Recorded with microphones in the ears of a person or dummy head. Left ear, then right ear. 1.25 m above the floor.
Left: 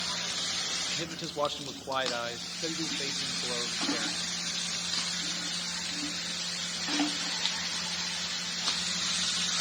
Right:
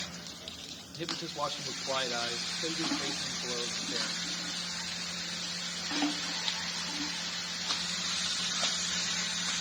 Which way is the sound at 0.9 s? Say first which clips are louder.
Left 3 dB; 15° left (ahead or behind).